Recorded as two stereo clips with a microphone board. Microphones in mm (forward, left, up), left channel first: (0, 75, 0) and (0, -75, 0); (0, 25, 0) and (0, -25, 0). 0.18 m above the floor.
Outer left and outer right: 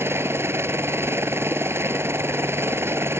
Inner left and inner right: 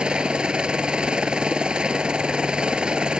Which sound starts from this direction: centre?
A helicopter, at 0.0 s.